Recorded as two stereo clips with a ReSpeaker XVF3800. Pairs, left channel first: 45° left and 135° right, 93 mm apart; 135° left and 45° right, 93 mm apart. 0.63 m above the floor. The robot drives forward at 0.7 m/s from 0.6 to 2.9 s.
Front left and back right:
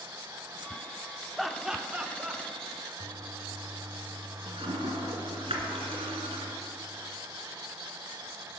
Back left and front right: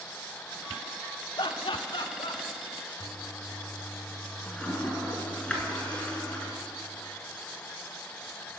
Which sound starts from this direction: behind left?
Laughter, at 1.4 s.